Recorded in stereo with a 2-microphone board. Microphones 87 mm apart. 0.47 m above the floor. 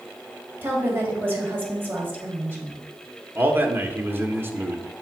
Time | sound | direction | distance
0.6 | a woman speaking | 25° right (ahead or behind) | 2 m
3.4 | a man speaking | 25° right (ahead or behind) | 0.8 m